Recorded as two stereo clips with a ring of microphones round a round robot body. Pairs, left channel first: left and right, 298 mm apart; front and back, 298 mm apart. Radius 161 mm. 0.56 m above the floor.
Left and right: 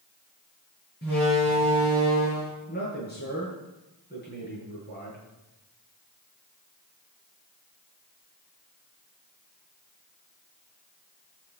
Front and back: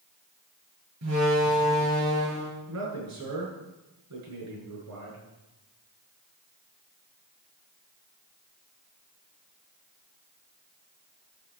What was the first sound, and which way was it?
A door slam, 150° left.